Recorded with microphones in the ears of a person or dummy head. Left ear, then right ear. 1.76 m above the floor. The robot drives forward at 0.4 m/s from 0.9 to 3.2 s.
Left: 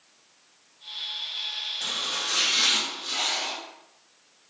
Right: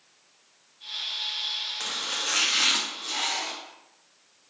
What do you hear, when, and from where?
1.8 s chopping: 60° right (ahead or behind), 0.7 m; by 3.5 s 35° right (ahead or behind), 1.0 m